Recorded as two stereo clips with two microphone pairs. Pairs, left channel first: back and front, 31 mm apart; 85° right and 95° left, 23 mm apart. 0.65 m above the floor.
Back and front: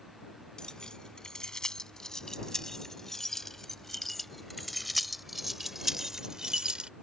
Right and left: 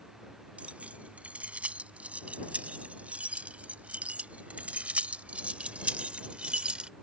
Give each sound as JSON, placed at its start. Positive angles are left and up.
{"t": 0.6, "sound": "keys jangling", "azimuth_deg": 115}